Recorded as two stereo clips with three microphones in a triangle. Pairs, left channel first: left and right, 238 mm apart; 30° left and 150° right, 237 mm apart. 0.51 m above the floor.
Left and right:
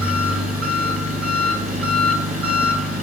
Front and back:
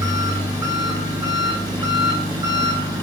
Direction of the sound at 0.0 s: 75° right.